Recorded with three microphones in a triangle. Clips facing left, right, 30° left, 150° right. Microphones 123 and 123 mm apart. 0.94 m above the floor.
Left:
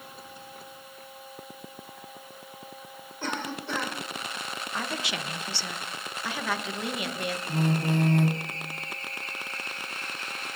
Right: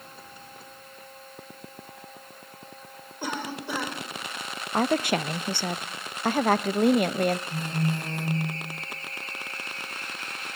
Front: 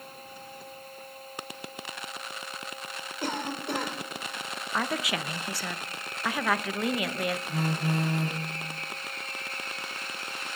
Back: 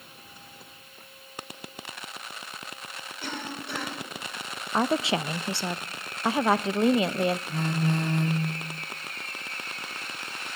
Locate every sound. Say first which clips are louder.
3.2 s a cough: right 1 dB, front 4 dB; 10° right, 3.5 m
4.7 s a woman speaking: right 11 dB, back 6 dB; 100° right, 0.5 m
7.5 s a phone buzzing: left 3 dB, back 2 dB; 115° left, 2.0 m